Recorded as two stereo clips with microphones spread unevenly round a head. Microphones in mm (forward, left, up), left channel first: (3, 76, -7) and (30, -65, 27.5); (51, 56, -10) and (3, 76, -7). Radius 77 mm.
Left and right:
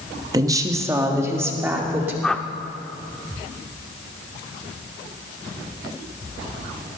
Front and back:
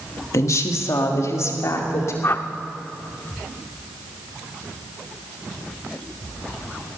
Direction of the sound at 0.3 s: 10° right.